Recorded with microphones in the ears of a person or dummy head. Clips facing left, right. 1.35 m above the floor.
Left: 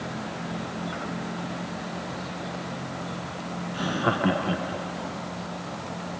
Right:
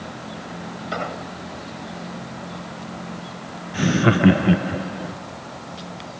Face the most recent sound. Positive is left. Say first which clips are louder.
# right 9 dB
turn(degrees=-35)  # may be behind; listen again after turning